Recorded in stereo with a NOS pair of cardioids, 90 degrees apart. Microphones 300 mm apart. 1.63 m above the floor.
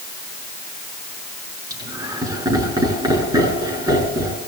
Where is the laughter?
10° right, 10 m.